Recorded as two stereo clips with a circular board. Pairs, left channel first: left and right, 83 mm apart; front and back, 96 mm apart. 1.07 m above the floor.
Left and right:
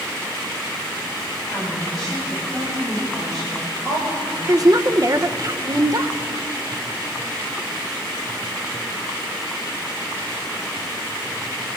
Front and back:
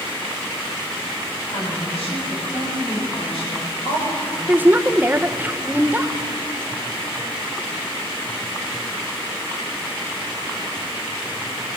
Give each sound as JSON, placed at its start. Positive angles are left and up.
{"t": 1.5, "sound": "a woman speaking", "azimuth_deg": 5, "distance_m": 7.0}
{"t": 4.5, "sound": "a woman speaking", "azimuth_deg": -115, "distance_m": 0.7}